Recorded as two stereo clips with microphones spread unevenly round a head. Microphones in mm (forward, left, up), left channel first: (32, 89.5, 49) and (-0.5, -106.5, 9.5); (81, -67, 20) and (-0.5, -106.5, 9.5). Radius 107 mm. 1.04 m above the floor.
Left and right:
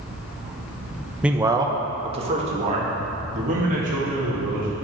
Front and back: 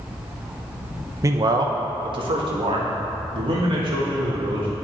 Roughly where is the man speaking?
Behind.